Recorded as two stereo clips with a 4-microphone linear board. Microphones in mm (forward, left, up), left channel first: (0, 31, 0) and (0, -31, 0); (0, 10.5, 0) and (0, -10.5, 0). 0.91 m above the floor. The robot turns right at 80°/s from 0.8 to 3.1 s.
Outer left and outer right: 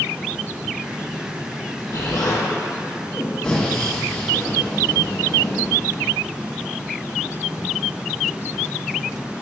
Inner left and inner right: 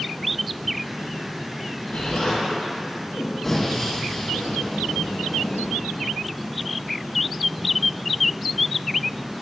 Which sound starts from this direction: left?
An explosion, at 1.9 s.